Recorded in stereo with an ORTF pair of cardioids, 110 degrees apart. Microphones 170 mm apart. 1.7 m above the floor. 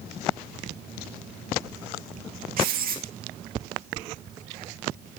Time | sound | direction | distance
2.6 | writing | 65° right | 2 m